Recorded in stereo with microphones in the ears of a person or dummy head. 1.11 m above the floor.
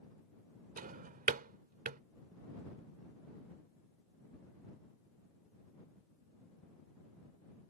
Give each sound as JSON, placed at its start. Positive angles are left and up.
{"t": 0.8, "sound": "a drawer", "side_deg": -45}